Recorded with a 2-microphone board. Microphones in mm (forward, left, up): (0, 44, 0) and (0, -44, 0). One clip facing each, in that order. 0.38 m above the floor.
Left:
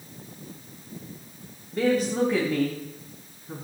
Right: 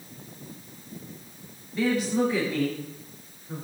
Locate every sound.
1.7 s a woman speaking: 45° left (ahead or behind), 2.5 m; by 3.6 s 60° left (ahead or behind), 4.5 m